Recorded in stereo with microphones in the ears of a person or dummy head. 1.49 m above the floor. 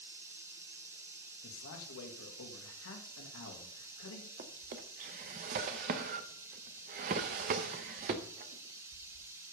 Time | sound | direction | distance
0.0 | running water | 15° right (ahead or behind) | 0.9 m
1.4 | a man speaking | 80° left | 2 m
4.4 | a drawer | 40° right (ahead or behind) | 0.8 m